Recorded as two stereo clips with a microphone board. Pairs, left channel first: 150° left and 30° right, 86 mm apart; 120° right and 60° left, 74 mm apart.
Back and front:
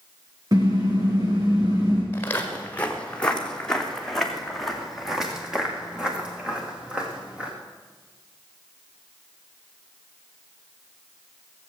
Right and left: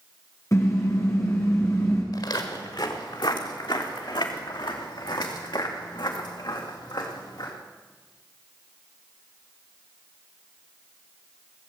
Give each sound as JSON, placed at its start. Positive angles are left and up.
{"t": 0.5, "sound": "a car horn", "azimuth_deg": -75, "distance_m": 5.0}
{"t": 2.1, "sound": "footsteps", "azimuth_deg": -145, "distance_m": 2.0}